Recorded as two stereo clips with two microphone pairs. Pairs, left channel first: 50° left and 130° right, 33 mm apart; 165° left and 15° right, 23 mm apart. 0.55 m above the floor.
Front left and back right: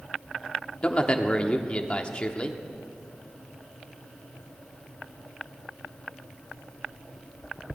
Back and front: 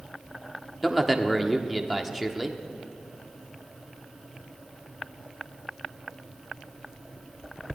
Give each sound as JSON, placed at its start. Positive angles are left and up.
{"t": 0.8, "sound": "a man speaking", "azimuth_deg": 65, "distance_m": 1.3}